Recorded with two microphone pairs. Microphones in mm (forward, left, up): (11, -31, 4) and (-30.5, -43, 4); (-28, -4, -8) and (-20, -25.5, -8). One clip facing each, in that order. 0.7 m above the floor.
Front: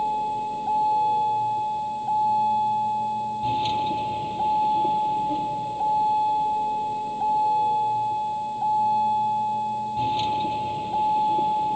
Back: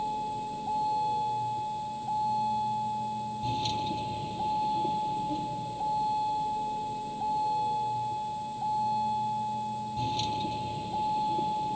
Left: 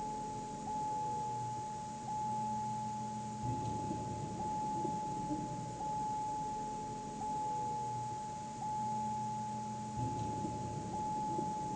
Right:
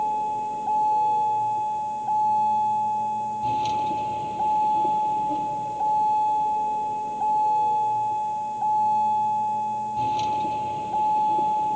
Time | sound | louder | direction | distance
0.0 | a vehicle | front 7 dB, right 16 dB | 45° right | ?